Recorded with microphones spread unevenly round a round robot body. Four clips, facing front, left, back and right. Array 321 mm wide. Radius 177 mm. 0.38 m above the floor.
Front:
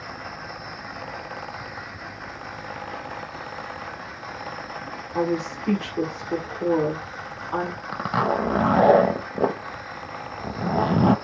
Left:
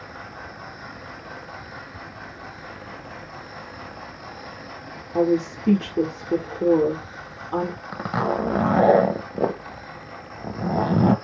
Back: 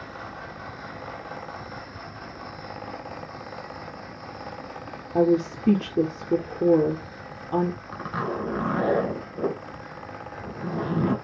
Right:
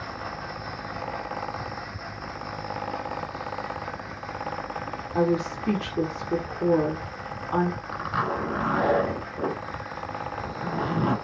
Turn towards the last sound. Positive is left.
turn(degrees=45)